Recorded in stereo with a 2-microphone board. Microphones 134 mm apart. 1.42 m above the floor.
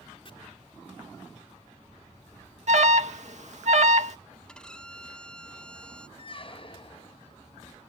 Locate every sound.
0.2 s chopping: 40° left (ahead or behind)
2.7 s an alarm: 60° right (ahead or behind)
4.5 s a violin: 5° left (ahead or behind)
6.2 s a squeak: 40° left (ahead or behind)